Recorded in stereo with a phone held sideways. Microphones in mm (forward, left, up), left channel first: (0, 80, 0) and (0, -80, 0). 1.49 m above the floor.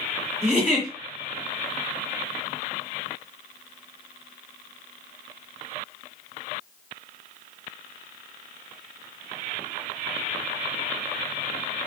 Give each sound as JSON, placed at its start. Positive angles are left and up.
{"t": 0.4, "sound": "a giggle", "side_deg": -5, "distance_m": 1.8}